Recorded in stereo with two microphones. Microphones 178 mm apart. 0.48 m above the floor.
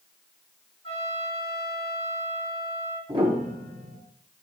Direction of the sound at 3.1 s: 25° right (ahead or behind).